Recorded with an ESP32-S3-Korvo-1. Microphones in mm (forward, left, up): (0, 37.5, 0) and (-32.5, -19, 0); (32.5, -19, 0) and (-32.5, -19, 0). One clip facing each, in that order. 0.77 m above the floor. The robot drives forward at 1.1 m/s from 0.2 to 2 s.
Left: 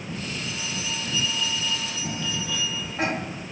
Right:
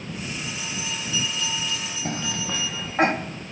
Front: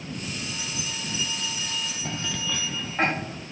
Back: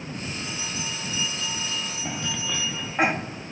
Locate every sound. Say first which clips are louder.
0.3 s a bell: even, back 1 dB; 30° right, 8 m; by 2.9 s 40° right, 6.5 m
2.0 s a cough: right 3 dB, back 1 dB; 100° right, 1.2 m